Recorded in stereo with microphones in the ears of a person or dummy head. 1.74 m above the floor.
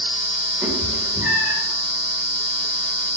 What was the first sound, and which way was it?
A cat meowing, 20° right (ahead or behind).